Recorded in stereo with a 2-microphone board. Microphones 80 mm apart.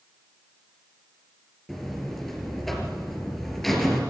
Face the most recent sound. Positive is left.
turn(degrees=0)  # may be behind; listen again after turning